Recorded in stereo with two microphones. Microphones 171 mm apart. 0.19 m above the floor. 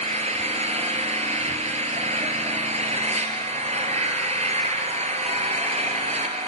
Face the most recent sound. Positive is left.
turn(degrees=-40)  # may be behind; listen again after turning